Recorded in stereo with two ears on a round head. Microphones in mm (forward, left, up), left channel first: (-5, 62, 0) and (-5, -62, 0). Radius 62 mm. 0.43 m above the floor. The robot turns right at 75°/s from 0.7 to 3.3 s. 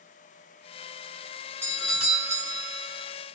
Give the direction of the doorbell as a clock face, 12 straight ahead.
7 o'clock.